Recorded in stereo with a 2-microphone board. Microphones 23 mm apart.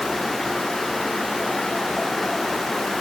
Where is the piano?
I don't hear a piano.